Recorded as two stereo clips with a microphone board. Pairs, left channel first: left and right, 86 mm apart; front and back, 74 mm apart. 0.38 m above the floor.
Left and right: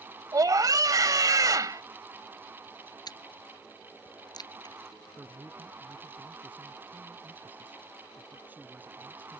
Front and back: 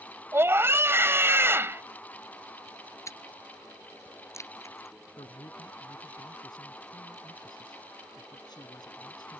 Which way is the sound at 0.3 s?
130° right.